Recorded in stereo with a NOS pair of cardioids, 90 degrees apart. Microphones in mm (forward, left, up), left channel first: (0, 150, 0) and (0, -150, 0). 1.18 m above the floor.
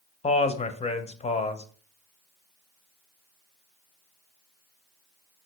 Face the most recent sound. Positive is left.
turn(degrees=20)